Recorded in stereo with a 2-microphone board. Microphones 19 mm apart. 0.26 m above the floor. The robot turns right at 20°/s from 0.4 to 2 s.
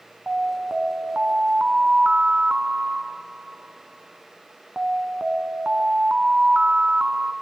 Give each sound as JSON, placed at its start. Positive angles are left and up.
{"t": 0.3, "sound": "an alarm", "azimuth_deg": -100, "distance_m": 1.7}